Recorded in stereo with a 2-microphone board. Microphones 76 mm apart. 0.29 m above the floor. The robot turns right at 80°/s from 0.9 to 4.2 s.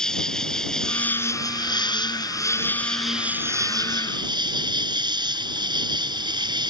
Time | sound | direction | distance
0.0 | an insect | 10° left | ?